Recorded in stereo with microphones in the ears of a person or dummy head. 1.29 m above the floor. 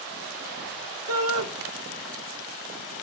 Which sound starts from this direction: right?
A shout, at 1.1 s.